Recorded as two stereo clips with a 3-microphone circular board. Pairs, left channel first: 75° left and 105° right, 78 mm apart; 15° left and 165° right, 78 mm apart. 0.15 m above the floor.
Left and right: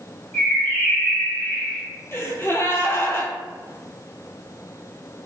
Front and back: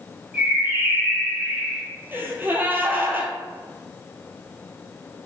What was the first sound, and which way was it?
A bird, 135° left.